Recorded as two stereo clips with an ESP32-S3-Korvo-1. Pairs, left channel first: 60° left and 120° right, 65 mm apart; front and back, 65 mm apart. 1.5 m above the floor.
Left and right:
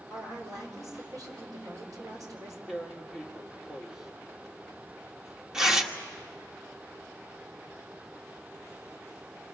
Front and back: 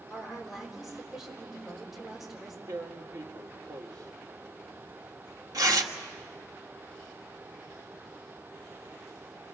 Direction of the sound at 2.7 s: 160° left.